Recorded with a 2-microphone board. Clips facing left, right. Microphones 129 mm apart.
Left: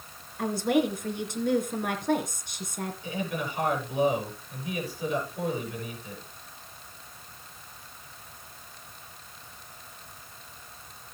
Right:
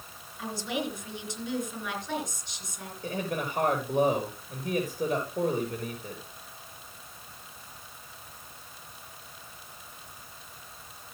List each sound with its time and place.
0.4 s a woman speaking: 55° left (ahead or behind), 3 m
3.0 s a man speaking: 50° right (ahead or behind), 5 m